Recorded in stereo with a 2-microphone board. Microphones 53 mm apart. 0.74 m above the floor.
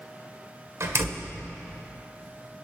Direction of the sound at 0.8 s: 65° right (ahead or behind).